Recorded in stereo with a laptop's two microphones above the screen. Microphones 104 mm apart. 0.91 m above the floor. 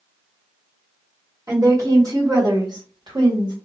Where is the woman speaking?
35° right (ahead or behind), 2.5 m; by 3.5 s 55° right (ahead or behind), 1.8 m.